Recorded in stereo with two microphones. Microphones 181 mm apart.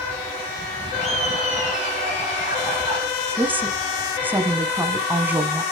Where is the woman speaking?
10° right (ahead or behind), 1.2 m.